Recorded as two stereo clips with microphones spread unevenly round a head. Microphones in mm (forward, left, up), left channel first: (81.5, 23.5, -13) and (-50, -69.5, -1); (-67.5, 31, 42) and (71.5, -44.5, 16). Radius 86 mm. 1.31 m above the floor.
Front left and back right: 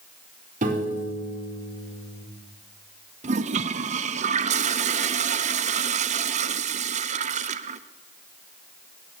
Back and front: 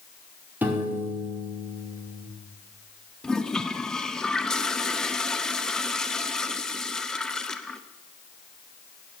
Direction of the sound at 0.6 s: 105° right.